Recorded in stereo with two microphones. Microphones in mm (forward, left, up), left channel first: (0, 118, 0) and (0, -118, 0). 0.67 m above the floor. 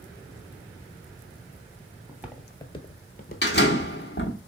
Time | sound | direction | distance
2.1 | footsteps | 10° right (ahead or behind) | 0.9 m
3.4 | a door slam | 45° left (ahead or behind) | 1.0 m